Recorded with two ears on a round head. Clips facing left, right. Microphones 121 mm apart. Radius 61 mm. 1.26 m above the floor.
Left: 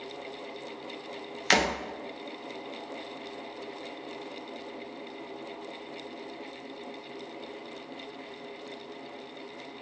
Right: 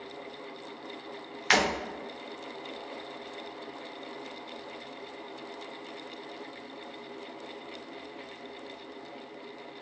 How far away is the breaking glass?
About 0.7 m.